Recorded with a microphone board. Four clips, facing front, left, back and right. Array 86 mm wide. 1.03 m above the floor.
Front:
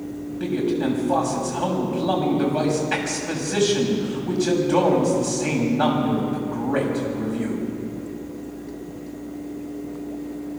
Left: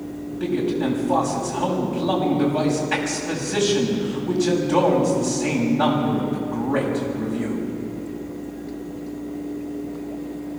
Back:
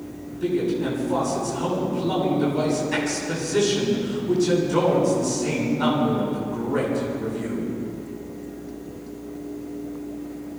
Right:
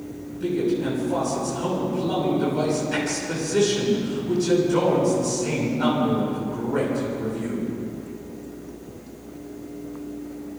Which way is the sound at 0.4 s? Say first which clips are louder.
Left 1 dB, even; 35° left.